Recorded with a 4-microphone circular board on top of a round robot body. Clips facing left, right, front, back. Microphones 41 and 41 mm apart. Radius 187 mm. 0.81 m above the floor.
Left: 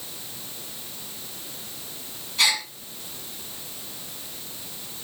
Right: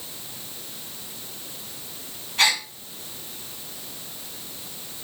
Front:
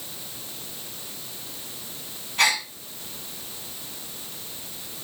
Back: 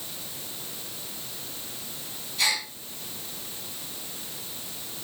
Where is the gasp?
40° right, 3.5 m.